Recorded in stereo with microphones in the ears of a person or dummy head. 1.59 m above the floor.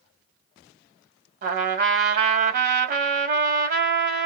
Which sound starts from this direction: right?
A trumpet, at 1.4 s.